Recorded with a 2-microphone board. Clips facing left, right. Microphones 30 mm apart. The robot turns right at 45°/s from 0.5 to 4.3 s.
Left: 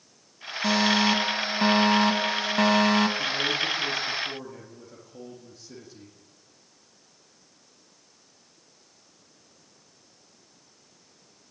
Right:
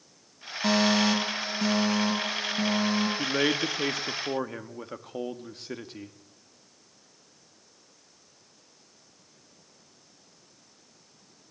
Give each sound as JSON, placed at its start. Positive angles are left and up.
{"t": 0.6, "sound": "a fire alarm", "azimuth_deg": -5, "distance_m": 2.5}
{"t": 3.2, "sound": "a man speaking", "azimuth_deg": -110, "distance_m": 1.8}